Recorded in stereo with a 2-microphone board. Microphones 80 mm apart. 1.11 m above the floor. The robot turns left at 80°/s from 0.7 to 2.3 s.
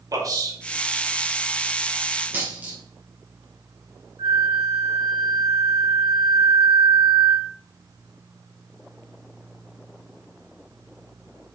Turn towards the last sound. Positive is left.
turn(degrees=-70)  # may be behind; listen again after turning